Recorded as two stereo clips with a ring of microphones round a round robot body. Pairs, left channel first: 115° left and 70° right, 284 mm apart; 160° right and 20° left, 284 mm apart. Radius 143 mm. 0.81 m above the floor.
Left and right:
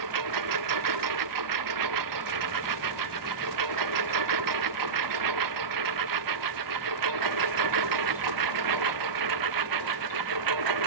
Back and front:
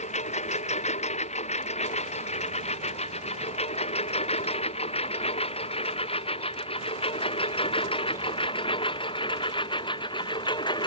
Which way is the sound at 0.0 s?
90° right.